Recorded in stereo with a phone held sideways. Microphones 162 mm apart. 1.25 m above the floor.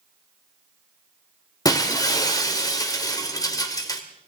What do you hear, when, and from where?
1.6 s breaking glass: 25° left (ahead or behind), 1.3 m